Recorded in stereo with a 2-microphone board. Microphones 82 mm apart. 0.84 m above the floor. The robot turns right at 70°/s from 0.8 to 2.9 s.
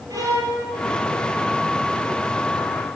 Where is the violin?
45° right (ahead or behind), 3.5 m.